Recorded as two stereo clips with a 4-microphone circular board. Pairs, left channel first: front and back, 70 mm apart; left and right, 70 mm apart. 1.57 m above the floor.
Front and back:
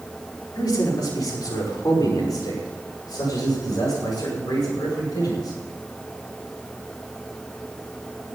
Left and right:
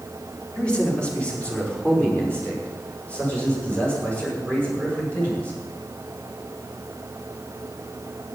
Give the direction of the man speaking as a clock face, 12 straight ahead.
11 o'clock.